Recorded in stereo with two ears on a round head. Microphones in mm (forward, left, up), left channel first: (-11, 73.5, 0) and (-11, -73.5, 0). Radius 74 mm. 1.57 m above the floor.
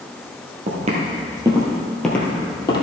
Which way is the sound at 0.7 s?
50° right (ahead or behind).